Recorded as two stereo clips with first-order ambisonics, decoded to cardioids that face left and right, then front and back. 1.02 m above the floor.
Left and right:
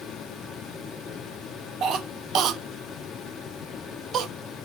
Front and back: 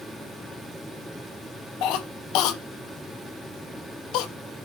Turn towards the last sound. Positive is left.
turn(degrees=-35)